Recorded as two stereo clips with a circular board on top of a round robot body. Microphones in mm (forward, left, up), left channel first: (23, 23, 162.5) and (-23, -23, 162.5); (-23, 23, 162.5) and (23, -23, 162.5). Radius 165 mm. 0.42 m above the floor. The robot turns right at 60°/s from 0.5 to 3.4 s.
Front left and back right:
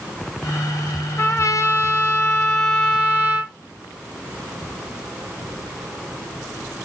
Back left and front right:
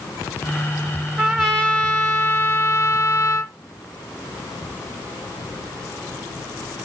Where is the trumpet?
35° left, 1.4 m; by 3.5 s 170° left, 1.4 m.